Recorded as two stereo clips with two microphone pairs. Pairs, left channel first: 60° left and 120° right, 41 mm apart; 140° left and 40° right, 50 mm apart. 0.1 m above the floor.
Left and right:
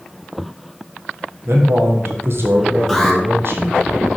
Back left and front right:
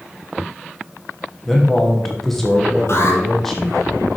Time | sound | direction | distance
1.4 | a man speaking | 135° right | 3.5 m
2.9 | an alarm | 145° left | 3 m